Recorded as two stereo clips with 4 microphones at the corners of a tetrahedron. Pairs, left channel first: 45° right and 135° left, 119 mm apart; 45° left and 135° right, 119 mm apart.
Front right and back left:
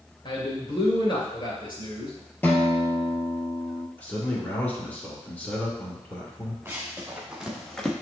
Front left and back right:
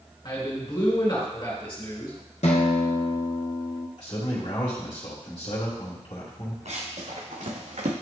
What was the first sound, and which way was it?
A man speaking, 5° right.